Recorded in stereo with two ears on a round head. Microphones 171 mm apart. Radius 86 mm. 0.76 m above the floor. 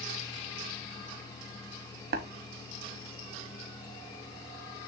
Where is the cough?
I don't hear a cough.